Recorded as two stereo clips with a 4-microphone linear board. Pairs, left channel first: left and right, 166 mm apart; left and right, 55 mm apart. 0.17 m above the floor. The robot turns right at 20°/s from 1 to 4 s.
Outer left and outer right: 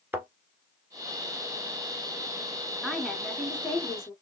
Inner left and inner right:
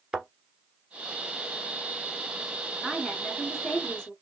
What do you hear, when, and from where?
0.1 s a thud: 15° right (ahead or behind), 1.3 m
2.8 s a woman speaking: centre (ahead or behind), 1.6 m; by 4.1 s 15° left (ahead or behind), 1.6 m